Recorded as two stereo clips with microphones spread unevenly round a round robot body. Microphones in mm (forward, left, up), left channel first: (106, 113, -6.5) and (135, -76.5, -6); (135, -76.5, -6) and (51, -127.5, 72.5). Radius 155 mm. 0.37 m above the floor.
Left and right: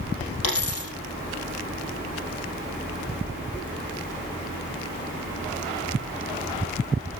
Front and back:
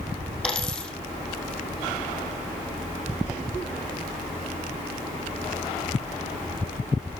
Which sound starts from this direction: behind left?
A dropped coin, at 0.4 s.